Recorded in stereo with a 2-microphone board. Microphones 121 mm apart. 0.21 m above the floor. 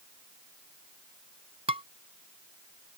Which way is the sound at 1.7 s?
60° right (ahead or behind).